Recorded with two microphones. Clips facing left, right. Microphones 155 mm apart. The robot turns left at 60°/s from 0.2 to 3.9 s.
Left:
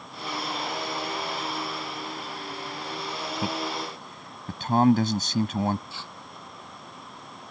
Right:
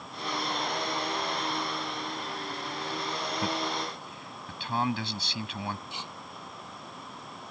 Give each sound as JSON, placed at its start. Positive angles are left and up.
{"t": 3.4, "sound": "a man speaking", "side_deg": 15}
{"t": 5.9, "sound": "tearing paper", "side_deg": -20}